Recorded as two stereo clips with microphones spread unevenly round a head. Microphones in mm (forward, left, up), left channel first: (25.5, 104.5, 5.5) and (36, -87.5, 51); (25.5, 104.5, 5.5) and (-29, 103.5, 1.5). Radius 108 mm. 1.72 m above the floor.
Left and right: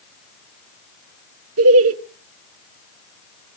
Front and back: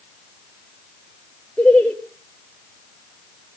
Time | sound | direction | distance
1.6 | laughter | 85° right | 0.9 m